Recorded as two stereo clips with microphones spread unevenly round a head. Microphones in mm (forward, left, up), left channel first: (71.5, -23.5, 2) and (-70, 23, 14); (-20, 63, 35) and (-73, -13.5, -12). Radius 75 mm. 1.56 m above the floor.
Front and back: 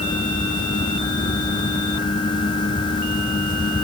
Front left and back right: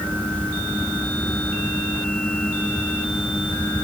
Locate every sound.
Only background noise.